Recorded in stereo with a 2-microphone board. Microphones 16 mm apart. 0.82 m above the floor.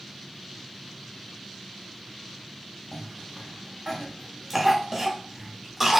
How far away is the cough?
About 0.8 m.